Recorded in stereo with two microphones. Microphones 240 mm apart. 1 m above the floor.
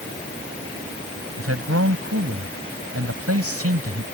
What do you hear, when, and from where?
1.4 s a man speaking: 75° right (ahead or behind)